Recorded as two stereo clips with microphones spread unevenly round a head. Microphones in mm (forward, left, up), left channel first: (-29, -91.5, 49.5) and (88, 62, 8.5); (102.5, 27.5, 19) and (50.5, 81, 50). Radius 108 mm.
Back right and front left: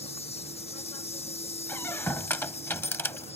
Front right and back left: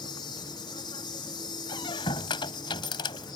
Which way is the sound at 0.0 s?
65° right.